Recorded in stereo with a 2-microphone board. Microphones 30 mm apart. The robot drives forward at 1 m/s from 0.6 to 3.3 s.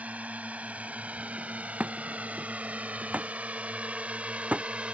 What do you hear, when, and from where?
0.0 s a drone: 60° right (ahead or behind); by 4.9 s 50° right (ahead or behind)
1.8 s a thud: 45° right (ahead or behind); by 4.7 s 55° right (ahead or behind)